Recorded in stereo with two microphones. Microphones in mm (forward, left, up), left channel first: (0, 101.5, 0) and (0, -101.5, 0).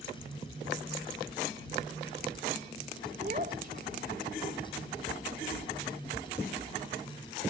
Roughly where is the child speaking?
Right.